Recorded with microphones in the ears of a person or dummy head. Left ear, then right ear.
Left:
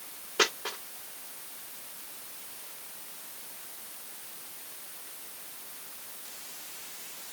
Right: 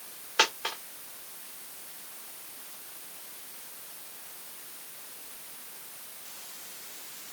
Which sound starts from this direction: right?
A dropped coin, at 0.4 s.